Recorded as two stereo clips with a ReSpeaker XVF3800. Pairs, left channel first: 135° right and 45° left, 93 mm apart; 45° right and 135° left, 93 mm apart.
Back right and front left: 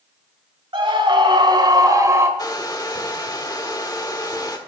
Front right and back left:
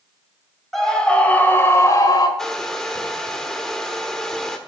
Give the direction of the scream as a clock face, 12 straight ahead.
11 o'clock.